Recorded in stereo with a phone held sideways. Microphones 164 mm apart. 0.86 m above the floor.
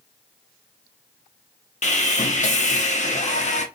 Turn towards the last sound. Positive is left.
turn(degrees=50)  # may be behind; listen again after turning